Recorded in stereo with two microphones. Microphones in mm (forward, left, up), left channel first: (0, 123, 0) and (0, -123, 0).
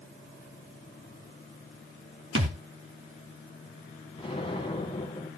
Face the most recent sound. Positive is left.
turn(degrees=20)  # may be behind; listen again after turning